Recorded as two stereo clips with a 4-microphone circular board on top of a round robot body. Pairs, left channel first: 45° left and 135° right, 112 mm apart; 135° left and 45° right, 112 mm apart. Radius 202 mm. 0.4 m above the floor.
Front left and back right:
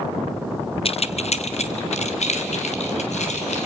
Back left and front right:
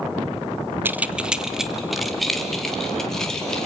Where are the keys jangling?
25° left, 0.7 m; by 3.7 s 50° left, 2.5 m.